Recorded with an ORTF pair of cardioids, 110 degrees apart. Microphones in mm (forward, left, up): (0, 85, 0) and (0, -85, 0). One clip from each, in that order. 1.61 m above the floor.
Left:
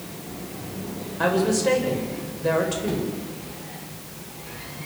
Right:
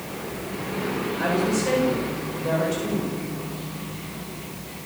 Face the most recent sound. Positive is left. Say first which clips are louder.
# left 4 dB
turn(degrees=35)